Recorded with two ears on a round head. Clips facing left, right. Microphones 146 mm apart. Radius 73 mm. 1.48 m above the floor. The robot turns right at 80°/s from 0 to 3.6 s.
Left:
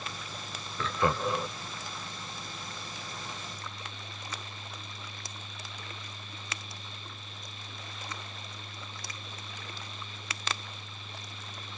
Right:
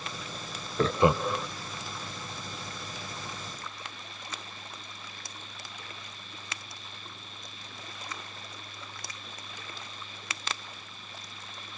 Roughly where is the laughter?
Right.